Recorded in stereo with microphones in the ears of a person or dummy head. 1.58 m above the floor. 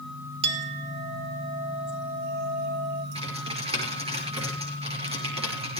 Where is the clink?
30° right (ahead or behind), 1.3 m.